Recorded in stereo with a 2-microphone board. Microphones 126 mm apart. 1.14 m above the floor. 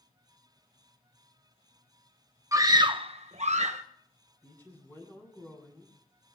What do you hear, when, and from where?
2.5 s a scream: 25° right (ahead or behind), 1.2 m; by 3.8 s 65° right (ahead or behind), 1.1 m
4.4 s a woman speaking: 15° left (ahead or behind), 8 m